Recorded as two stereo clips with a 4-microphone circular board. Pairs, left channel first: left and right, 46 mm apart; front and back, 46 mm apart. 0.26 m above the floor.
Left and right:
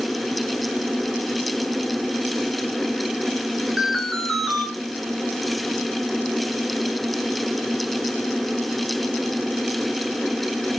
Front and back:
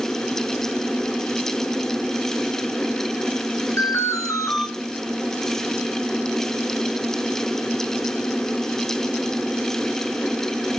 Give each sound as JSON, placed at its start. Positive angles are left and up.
{"t": 3.8, "sound": "an alarm", "azimuth_deg": -5, "distance_m": 6.0}